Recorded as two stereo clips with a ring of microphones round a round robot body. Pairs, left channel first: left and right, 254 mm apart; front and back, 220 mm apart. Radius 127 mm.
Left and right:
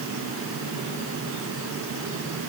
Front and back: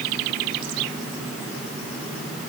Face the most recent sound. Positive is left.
No sound to turn to.